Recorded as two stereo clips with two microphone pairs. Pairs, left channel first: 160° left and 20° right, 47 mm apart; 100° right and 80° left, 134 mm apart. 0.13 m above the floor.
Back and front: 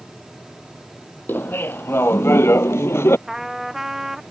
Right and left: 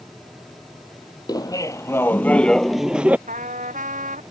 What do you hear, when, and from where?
1.3 s laughter: 160° right; by 3.2 s 155° left
3.3 s a trumpet: 65° left